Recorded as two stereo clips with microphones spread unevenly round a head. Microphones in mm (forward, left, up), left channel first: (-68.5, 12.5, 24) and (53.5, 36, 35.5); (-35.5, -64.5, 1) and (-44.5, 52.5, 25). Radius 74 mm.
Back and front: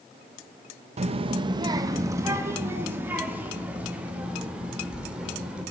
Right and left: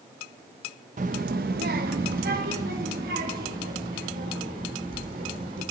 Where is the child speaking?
50° left, 0.6 m; by 5.6 s 95° left, 3.5 m.